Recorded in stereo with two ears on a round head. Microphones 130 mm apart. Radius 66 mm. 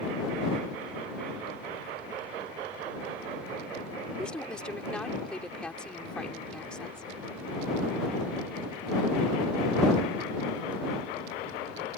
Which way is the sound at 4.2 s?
5° left (ahead or behind).